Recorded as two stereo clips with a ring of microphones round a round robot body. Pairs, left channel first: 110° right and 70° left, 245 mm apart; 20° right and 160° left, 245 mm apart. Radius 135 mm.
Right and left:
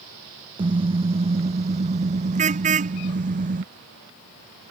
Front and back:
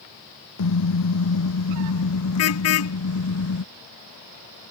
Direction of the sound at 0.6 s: 5° right.